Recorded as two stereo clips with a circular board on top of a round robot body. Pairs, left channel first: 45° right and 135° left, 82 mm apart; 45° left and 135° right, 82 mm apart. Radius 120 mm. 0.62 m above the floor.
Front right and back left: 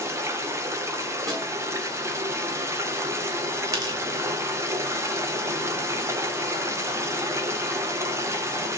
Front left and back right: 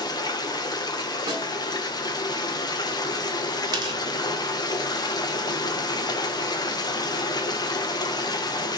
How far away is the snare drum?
About 5 m.